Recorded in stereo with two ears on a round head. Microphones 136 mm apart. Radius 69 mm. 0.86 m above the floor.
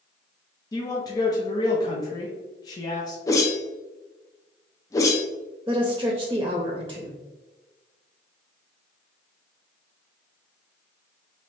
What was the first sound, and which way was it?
A man speaking, 25° left (ahead or behind).